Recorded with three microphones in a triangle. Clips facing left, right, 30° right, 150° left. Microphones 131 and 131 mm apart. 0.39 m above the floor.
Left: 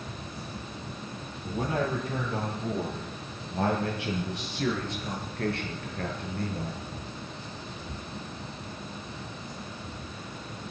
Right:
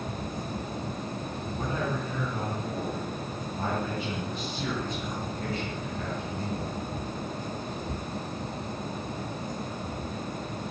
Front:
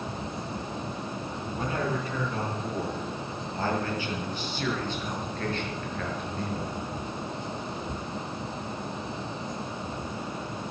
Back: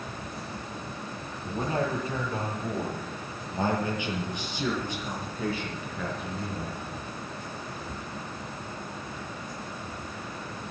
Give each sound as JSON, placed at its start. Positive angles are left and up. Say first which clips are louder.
{"t": 1.4, "sound": "a man speaking", "louder": "left 3 dB, back 2 dB", "azimuth_deg": 90, "distance_m": 10.0}